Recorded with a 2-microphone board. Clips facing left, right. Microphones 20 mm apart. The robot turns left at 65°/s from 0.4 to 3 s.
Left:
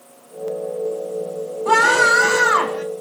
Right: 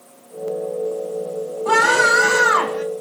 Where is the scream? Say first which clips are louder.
Left 1 dB; 20° left, 2 m; by 2.8 s 55° right, 2 m.